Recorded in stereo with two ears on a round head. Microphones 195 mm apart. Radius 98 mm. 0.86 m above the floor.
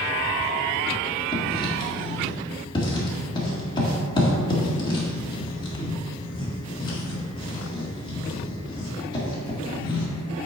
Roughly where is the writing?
Left.